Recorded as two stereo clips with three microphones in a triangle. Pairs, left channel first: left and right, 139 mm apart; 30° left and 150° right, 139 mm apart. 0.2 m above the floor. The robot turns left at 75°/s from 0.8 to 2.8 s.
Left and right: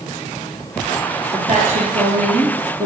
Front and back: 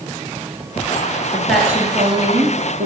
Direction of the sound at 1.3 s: 45° right.